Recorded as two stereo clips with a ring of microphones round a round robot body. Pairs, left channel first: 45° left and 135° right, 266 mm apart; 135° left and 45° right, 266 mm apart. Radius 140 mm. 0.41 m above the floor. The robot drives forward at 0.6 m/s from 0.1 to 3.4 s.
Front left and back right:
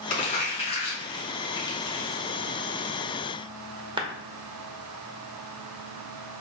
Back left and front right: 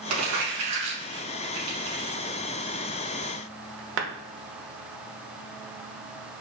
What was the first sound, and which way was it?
Crumpling, 20° right.